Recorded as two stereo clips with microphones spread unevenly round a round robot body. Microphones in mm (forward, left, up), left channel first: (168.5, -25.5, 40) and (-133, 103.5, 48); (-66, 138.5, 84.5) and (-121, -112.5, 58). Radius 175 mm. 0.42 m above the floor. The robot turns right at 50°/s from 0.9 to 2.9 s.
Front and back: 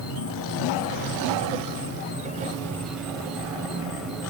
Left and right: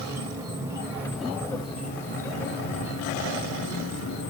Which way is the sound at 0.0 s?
35° right.